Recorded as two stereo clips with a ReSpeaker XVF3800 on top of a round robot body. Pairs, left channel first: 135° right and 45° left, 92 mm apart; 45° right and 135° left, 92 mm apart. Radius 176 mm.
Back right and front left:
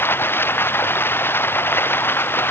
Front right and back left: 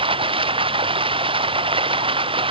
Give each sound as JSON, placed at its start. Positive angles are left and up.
{"t": 0.0, "sound": "running water", "azimuth_deg": 160}